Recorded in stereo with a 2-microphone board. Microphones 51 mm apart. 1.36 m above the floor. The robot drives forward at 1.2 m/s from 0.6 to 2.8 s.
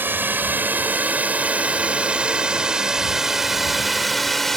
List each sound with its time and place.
0.0 s a drone: 40° right (ahead or behind); by 4.6 s 5° left (ahead or behind)